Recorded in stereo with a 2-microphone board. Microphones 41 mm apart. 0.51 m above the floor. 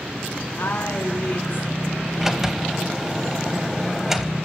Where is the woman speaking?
55° left (ahead or behind), 4 m.